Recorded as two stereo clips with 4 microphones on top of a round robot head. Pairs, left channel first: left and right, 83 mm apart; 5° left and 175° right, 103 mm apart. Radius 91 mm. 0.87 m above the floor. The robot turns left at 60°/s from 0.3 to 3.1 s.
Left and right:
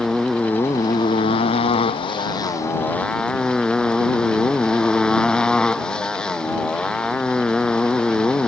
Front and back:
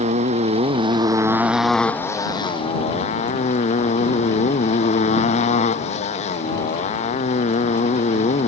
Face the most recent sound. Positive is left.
turn(degrees=10)